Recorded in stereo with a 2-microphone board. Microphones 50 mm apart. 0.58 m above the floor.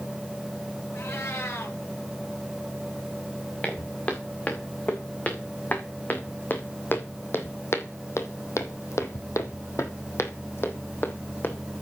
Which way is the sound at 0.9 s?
65° left (ahead or behind).